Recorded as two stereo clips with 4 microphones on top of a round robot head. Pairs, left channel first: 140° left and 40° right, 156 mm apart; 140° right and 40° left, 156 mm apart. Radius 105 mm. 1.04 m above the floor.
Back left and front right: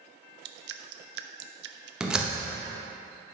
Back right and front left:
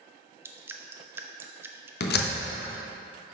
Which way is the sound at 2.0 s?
125° right.